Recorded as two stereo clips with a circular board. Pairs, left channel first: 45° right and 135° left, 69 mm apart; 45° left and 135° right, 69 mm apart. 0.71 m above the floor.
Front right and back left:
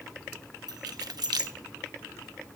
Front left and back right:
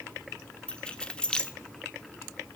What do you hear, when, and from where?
0.7 s keys jangling: 120° left, 1.1 m